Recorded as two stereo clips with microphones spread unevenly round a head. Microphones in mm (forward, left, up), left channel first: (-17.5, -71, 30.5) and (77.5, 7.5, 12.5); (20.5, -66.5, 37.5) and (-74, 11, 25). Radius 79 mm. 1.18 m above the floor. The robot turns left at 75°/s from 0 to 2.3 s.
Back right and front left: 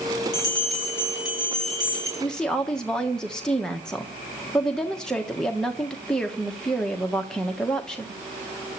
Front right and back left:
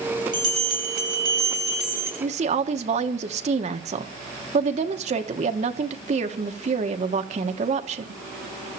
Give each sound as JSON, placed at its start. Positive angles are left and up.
{"t": 0.3, "sound": "a bell", "azimuth_deg": -165, "distance_m": 9.0}
{"t": 2.2, "sound": "a woman speaking", "azimuth_deg": 140, "distance_m": 1.2}